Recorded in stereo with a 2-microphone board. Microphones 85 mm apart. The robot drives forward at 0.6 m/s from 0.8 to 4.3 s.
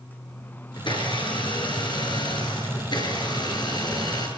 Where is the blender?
70° left (ahead or behind), 6.5 m; by 4.3 s 55° left (ahead or behind), 7.5 m.